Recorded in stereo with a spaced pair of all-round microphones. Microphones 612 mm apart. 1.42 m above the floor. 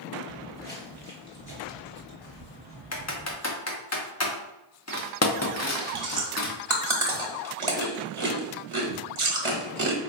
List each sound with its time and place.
0.3 s footsteps: 10° left (ahead or behind), 1.6 m; by 3.4 s 45° left (ahead or behind), 2 m
2.9 s typing on a keyboard: 30° left (ahead or behind), 0.5 m
5.8 s chewing: 55° right (ahead or behind), 0.9 m